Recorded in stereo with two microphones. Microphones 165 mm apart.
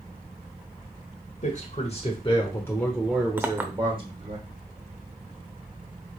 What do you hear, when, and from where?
1.4 s a man speaking: 50° left (ahead or behind), 1.2 m; by 4.4 s 40° right (ahead or behind), 1.2 m
3.4 s a clink: 10° right (ahead or behind), 0.6 m